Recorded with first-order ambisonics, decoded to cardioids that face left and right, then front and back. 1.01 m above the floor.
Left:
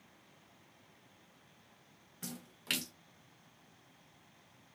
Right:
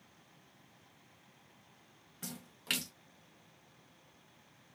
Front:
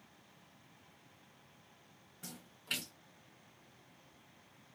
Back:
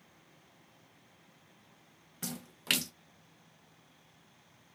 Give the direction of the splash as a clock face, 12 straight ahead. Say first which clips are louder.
Right 1 dB, back 9 dB; 6 o'clock.